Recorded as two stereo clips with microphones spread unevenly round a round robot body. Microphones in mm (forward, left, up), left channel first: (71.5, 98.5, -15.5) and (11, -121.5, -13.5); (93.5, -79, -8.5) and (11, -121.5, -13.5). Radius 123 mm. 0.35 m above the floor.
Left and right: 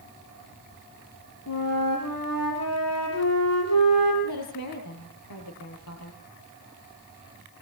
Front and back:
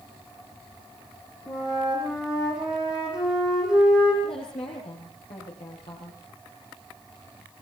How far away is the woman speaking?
About 7.5 m.